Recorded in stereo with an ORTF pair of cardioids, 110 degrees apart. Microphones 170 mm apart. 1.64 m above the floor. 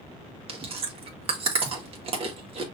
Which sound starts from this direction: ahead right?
Chewing, at 0.5 s.